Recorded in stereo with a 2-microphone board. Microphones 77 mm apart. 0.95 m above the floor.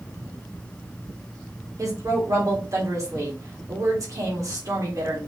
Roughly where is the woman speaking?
Right.